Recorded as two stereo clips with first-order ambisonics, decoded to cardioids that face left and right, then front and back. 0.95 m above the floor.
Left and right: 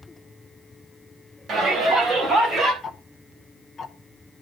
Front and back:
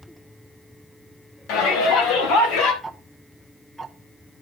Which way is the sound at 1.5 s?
25° right.